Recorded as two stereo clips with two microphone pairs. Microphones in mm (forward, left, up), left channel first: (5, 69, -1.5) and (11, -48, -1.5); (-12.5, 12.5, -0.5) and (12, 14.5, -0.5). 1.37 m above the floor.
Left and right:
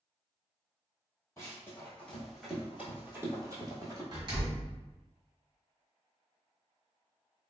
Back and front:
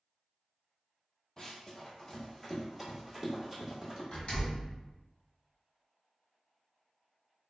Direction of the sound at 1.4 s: 140° left.